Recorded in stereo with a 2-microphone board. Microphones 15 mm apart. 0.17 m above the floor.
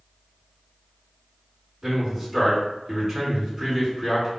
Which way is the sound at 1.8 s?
20° right (ahead or behind).